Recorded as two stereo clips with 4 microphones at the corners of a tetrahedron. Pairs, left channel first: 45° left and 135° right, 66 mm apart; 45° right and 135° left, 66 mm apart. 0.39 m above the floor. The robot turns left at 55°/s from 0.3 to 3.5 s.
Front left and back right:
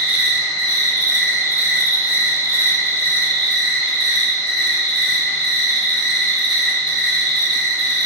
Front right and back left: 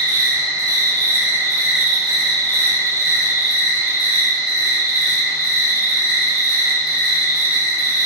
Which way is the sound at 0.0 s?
140° left.